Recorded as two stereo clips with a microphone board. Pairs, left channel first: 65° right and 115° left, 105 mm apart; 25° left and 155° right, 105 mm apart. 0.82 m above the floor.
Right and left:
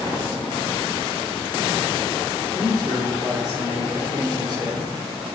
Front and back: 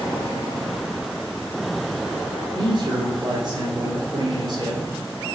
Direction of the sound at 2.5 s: 165° left.